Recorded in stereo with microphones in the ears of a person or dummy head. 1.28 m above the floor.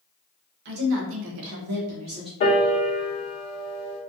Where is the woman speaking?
60° right (ahead or behind), 1.1 m; by 2.3 s 30° right (ahead or behind), 0.9 m.